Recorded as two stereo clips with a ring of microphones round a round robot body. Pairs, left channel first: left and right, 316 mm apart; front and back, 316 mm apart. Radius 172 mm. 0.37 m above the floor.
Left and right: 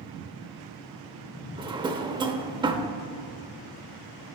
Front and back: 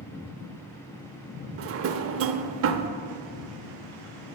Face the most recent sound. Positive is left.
turn(degrees=-160)